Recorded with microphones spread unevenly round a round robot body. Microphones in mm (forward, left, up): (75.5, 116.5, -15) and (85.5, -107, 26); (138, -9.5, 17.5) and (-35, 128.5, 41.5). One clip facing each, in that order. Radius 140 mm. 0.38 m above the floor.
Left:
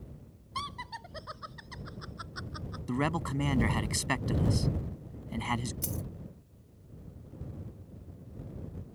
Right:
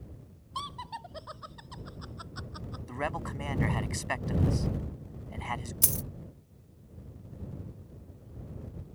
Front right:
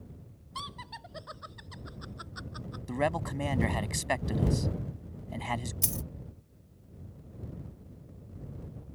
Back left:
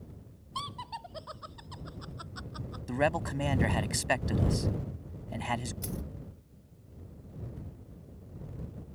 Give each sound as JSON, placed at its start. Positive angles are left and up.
{"t": 0.6, "sound": "laughter", "azimuth_deg": 30}
{"t": 2.9, "sound": "a man speaking", "azimuth_deg": 55}
{"t": 5.8, "sound": "a dropped coin", "azimuth_deg": -65}